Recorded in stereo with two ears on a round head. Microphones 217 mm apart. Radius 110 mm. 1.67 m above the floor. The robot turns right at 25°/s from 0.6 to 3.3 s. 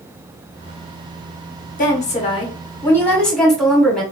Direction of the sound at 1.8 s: 140° left.